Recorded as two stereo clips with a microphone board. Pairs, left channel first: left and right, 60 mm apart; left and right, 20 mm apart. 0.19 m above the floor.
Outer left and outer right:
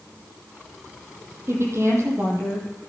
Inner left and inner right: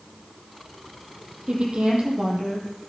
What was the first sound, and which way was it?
A woman speaking, 45° right (ahead or behind).